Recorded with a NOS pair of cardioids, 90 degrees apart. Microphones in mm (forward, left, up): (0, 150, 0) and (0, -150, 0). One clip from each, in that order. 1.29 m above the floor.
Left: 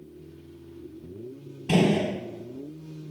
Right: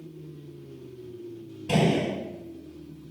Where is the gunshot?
20° left, 1.7 m.